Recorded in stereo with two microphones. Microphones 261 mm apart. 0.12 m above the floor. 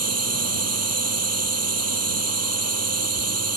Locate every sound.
0.0 s a drone: 65° right (ahead or behind)